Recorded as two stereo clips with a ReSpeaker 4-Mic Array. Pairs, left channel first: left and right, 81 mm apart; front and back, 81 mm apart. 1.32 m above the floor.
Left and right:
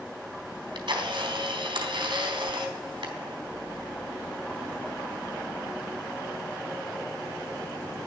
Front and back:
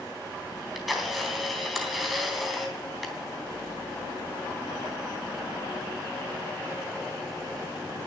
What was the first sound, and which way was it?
A camera shutter, 90° right.